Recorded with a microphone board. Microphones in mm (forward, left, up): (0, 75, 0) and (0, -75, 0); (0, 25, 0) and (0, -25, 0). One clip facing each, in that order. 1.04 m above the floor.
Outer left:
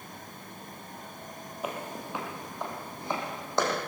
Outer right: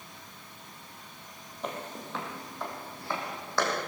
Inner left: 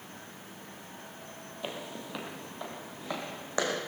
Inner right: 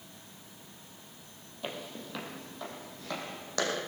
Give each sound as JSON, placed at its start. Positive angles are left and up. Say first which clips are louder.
{"t": 1.6, "sound": "footsteps", "louder": "outer left 1 dB, even", "side_deg": 5, "distance_m": 1.9}